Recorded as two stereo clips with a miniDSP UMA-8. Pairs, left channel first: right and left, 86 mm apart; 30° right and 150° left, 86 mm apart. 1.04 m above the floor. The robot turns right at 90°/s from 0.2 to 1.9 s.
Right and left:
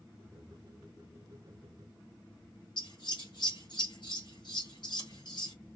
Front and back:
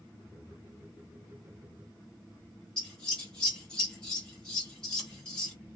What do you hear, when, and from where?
2.8 s scissors: 110° right, 1.1 m